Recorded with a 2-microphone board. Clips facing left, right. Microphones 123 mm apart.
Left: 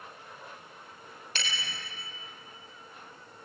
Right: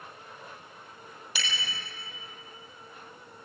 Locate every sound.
1.4 s a bicycle bell: 10° right (ahead or behind), 4.5 m